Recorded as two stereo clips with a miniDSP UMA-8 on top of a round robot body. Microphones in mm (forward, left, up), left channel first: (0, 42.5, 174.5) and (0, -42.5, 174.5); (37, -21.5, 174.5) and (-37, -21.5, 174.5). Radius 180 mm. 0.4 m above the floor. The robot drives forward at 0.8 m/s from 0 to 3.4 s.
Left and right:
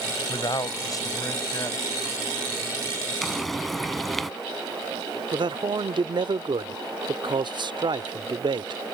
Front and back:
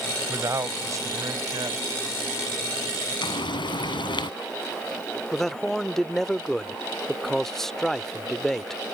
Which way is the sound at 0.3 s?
125° left.